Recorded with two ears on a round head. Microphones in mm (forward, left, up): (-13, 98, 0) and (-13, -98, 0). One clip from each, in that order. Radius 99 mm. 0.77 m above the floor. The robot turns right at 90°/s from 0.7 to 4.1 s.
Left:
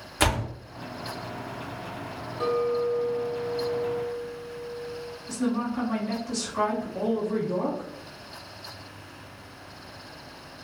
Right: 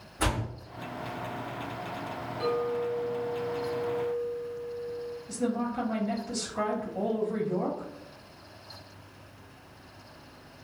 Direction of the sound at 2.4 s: 5° left.